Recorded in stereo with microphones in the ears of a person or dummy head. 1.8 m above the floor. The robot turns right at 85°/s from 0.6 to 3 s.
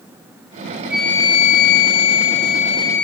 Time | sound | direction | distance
0.9 | a flute | 5° right | 0.8 m